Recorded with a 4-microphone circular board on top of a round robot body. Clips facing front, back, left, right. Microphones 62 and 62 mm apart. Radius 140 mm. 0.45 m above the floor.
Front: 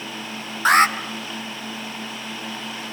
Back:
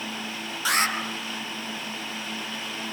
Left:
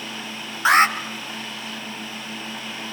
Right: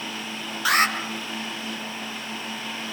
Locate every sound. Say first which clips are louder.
0.7 s an alarm: front 9 dB, left 5 dB; 35° left, 3 m